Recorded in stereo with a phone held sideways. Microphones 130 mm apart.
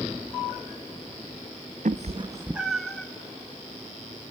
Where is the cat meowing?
75° right (ahead or behind), 0.6 m; by 3.1 s 10° left (ahead or behind), 1.3 m.